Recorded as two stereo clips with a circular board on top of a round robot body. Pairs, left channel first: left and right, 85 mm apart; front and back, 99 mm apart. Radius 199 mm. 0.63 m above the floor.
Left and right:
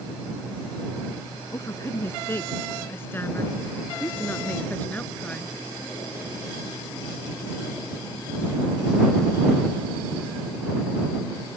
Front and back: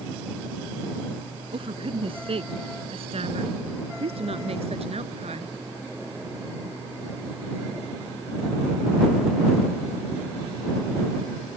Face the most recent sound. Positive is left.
turn(degrees=170)